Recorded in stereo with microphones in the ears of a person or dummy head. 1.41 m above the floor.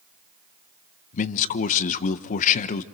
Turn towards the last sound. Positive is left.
turn(degrees=45)  # may be behind; listen again after turning